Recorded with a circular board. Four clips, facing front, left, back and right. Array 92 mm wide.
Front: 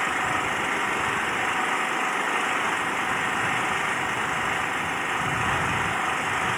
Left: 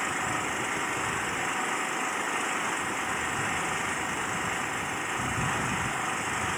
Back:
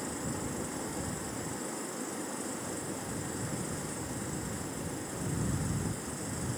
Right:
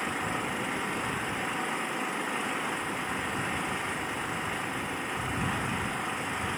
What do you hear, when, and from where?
0.0 s an engine running: 10° left